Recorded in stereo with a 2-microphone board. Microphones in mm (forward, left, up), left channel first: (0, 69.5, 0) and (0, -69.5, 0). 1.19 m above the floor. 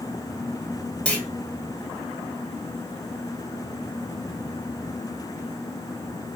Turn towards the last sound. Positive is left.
turn(degrees=10)  # may be behind; listen again after turning